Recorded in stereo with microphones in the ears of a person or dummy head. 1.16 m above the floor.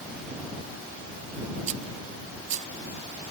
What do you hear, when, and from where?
1.7 s a rattle: 40° right (ahead or behind)